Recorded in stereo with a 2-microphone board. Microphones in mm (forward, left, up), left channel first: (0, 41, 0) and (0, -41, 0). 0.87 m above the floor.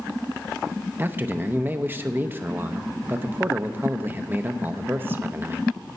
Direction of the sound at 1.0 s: 25° right (ahead or behind).